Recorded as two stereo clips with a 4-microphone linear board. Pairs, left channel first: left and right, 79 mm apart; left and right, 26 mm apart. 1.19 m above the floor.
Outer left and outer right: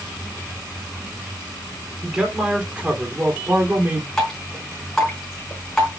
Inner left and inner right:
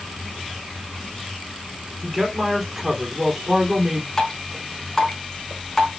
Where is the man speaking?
5° right (ahead or behind), 3 m; by 4.1 s 30° right (ahead or behind), 3 m.